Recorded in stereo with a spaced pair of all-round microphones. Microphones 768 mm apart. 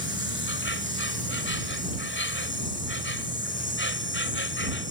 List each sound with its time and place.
0.0 s an insect: 15° left (ahead or behind)